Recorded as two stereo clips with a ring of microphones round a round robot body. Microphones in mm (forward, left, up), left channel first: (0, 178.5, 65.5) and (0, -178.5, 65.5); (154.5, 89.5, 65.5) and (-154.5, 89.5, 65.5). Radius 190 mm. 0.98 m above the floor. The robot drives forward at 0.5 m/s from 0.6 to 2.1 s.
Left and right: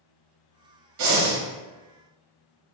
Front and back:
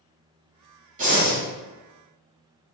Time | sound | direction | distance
1.0 | breathing | 120° right | 1.1 m